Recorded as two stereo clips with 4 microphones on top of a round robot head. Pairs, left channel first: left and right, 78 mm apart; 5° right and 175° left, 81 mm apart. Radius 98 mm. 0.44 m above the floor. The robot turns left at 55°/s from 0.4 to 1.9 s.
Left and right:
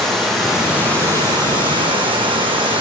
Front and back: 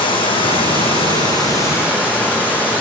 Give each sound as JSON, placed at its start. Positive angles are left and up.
{"t": 0.0, "sound": "running water", "azimuth_deg": 5, "distance_m": 8.0}